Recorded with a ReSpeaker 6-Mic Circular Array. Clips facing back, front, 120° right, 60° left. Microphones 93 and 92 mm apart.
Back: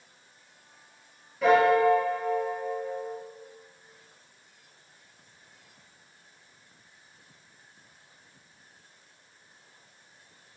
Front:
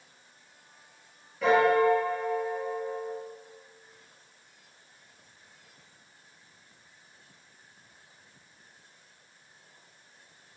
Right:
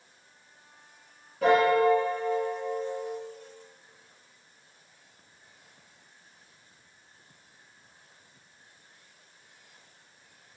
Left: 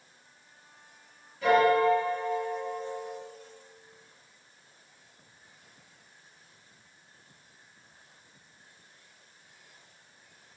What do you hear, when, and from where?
1.4 s a piano: 90° right, 6 m